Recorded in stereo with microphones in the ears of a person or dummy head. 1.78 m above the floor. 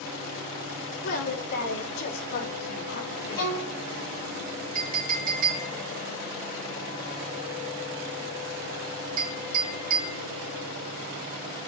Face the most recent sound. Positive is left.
turn(degrees=-45)  # may be behind; listen again after turning